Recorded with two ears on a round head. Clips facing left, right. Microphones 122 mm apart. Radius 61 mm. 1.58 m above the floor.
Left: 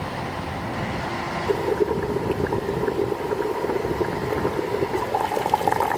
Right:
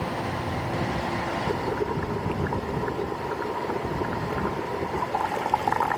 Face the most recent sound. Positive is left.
turn(degrees=35)  # may be behind; listen again after turning